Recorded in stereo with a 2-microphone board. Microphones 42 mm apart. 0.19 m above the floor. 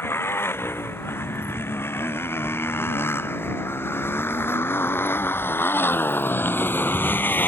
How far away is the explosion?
No explosion in this recording.